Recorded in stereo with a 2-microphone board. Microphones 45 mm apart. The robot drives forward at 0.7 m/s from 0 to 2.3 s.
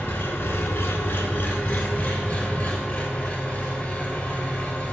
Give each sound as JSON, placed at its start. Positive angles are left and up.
{"t": 0.0, "sound": "an engine running", "side_deg": 50, "distance_m": 0.9}